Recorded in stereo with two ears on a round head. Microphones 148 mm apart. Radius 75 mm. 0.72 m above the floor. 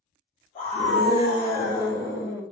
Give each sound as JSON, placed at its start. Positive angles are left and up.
{"t": 0.6, "sound": "a scream", "side_deg": 35, "distance_m": 0.9}